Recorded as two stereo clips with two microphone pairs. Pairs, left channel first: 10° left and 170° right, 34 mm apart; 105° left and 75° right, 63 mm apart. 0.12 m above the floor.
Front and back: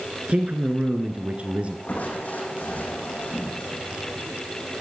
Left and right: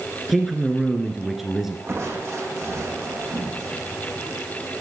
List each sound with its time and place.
0.3 s a man speaking: 160° right, 1.4 m
1.9 s crushing: 35° right, 4 m